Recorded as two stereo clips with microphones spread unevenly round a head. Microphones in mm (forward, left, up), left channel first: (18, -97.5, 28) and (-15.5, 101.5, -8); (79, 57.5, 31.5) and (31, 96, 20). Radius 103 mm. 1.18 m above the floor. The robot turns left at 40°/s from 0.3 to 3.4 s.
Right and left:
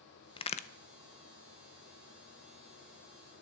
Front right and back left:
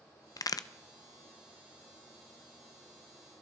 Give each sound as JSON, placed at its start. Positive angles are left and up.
{"t": 0.4, "sound": "a crack", "azimuth_deg": -10, "distance_m": 0.7}